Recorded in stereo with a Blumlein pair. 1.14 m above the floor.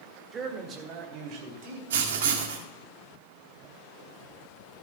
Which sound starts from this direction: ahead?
A man speaking, at 0.3 s.